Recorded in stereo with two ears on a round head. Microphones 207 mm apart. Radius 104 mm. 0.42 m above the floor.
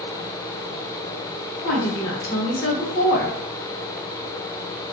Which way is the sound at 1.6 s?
25° left (ahead or behind).